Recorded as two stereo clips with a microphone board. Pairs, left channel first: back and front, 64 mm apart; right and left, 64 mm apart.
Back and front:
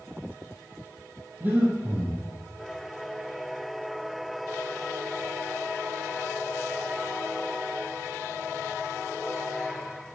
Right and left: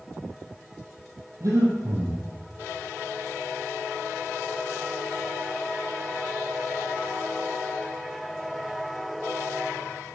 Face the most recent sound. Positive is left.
turn(degrees=60)